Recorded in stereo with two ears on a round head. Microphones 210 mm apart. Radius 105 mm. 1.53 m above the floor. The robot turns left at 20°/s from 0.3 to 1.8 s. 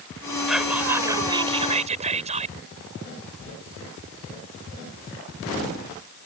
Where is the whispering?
Centre (ahead or behind); by 2.5 s 25° right (ahead or behind).